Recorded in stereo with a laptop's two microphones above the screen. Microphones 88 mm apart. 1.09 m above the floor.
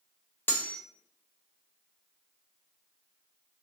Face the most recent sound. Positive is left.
turn(degrees=20)  # may be behind; listen again after turning